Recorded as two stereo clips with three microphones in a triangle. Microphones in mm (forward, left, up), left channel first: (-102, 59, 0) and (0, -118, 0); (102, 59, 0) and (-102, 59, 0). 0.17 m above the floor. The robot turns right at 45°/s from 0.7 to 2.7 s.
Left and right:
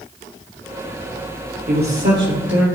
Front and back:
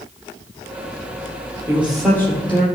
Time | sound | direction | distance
1.7 | a man speaking | 105° right | 3.5 m